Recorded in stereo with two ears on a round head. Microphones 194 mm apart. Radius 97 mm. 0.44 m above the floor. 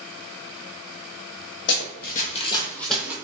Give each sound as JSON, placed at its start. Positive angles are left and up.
{"t": 1.7, "sound": "running footsteps", "side_deg": 55, "distance_m": 0.9}